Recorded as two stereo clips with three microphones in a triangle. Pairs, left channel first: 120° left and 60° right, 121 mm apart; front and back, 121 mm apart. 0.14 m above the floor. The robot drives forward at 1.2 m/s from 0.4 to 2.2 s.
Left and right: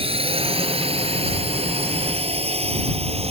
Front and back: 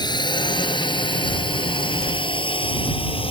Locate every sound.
0.0 s a drone: 45° right; by 3.3 s 35° right